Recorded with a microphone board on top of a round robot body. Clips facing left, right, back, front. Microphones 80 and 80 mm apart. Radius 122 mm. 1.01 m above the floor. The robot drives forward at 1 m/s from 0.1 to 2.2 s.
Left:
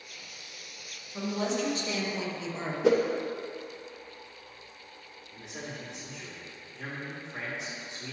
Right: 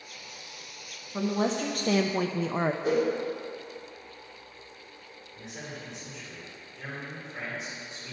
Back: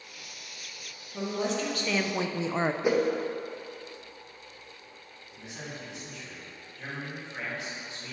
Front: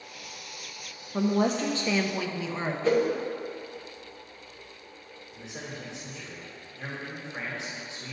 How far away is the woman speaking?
About 1.0 m.